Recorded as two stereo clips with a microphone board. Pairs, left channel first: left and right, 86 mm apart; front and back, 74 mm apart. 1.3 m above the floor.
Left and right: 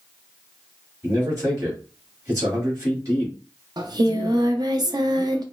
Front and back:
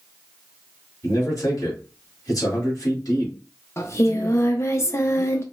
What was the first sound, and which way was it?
A man speaking, 40° right.